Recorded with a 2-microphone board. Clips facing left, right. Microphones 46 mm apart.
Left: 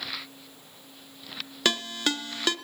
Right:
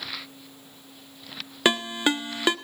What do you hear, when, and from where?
1.6 s a ringtone: 20° right (ahead or behind), 0.8 m